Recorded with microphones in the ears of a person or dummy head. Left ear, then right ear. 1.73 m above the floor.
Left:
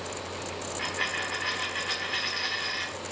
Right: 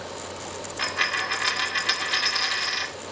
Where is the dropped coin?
50° right (ahead or behind), 2 m.